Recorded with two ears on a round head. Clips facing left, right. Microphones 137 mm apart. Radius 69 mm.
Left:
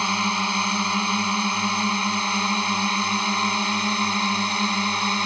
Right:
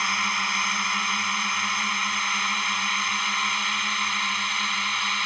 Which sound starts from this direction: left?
A drone, at 0.0 s.